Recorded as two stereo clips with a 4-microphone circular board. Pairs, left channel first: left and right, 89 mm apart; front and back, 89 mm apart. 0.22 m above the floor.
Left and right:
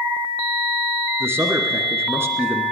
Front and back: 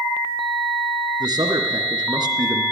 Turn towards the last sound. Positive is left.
turn(degrees=-150)